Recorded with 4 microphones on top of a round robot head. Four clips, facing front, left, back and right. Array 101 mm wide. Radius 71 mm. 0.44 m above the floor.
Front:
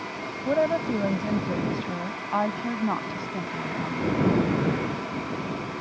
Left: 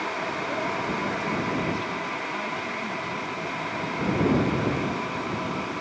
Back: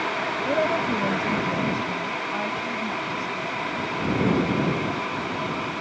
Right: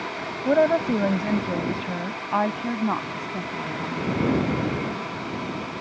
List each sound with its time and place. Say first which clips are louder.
0.5 s a woman speaking: right 14 dB, front 1 dB; 85° right; by 4.2 s 50° right